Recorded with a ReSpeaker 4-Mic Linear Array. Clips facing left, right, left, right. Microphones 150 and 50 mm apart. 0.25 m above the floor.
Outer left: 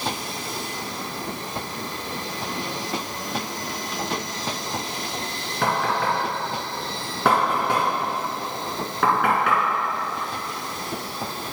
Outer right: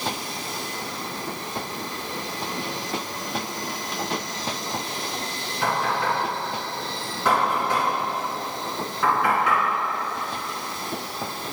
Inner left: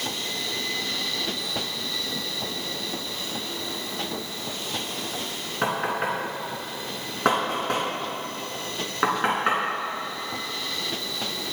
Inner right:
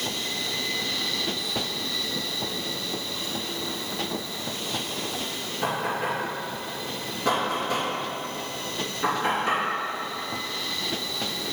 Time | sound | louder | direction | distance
5.6 | knocking | outer left 1 dB, inner left 2 dB | 65° left (ahead or behind) | 3 m